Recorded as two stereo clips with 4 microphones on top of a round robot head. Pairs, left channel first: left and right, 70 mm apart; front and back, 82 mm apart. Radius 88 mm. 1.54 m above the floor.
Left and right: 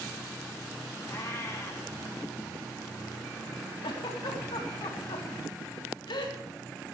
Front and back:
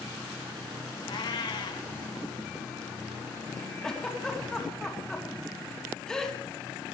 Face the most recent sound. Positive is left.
turn(degrees=80)